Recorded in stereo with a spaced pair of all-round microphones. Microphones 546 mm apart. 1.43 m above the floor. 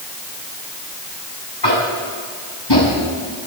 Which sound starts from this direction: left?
Tapping, at 1.6 s.